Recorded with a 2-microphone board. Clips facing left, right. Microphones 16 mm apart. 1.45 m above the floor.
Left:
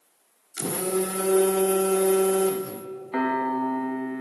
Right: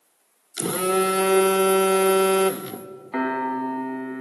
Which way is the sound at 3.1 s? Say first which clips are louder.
Even; 5° right (ahead or behind).